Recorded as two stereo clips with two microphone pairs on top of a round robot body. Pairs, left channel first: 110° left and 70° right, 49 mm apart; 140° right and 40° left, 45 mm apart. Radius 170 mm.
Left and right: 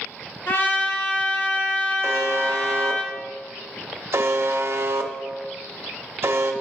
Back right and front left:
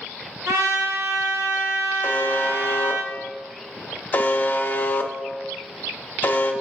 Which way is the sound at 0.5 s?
55° left.